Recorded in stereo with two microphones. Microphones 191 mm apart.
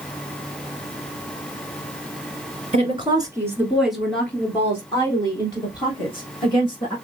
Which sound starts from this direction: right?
A woman speaking, at 2.7 s.